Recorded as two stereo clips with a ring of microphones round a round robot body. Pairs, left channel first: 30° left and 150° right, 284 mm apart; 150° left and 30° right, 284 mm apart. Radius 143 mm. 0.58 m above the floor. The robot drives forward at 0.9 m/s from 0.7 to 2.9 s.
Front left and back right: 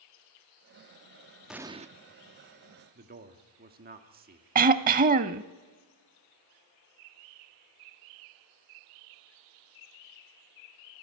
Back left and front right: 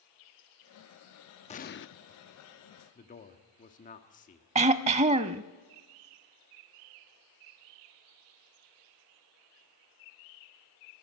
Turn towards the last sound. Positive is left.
turn(degrees=-95)